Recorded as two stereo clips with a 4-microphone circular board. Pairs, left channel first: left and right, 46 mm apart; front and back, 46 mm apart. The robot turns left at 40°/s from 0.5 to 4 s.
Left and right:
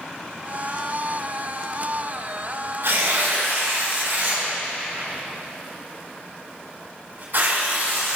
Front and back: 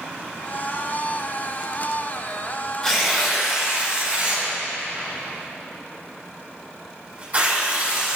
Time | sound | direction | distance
2.8 | tearing paper | 80° right | 5.5 m